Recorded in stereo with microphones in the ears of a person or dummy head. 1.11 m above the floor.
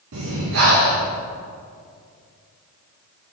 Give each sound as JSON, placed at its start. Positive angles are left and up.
{"t": 0.1, "sound": "breathing", "side_deg": -60, "distance_m": 1.1}